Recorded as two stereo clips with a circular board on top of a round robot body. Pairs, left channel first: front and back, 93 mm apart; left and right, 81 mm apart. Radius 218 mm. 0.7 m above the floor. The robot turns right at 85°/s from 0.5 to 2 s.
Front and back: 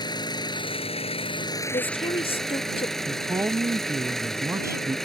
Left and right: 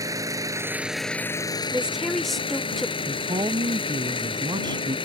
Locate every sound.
0.0 s an engine running: 40° right; by 5.1 s 85° left
1.7 s a woman speaking: 20° right; by 3.0 s straight ahead
3.1 s a man speaking: 120° right